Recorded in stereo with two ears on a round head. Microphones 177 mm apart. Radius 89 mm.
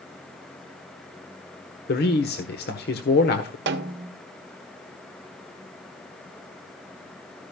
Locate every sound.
1.9 s a man speaking: 55° left (ahead or behind), 1.4 m
3.7 s a snare drum: 65° right (ahead or behind), 1.0 m